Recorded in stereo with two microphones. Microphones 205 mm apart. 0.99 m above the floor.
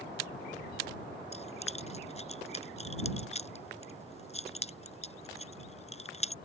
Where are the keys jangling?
30° left (ahead or behind).